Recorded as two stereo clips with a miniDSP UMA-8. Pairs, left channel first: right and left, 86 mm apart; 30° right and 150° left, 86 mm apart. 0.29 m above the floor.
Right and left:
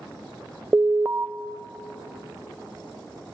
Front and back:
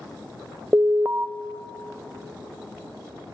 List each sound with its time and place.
0.7 s an alarm: 120° left, 0.7 m